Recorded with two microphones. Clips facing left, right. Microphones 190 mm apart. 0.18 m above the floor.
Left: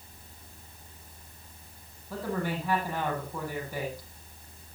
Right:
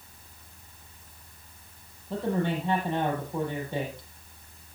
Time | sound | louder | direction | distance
2.1 | a man speaking | right 4 dB | 25° right (ahead or behind) | 7.5 m